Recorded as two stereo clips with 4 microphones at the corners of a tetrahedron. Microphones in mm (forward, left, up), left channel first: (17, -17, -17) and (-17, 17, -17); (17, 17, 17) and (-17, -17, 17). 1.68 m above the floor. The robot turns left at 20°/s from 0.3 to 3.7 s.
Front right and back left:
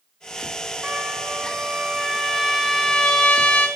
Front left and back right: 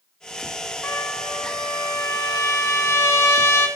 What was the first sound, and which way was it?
A trumpet, 75° left.